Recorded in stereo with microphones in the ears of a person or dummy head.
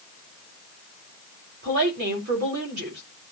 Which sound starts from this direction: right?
A woman speaking, at 1.6 s.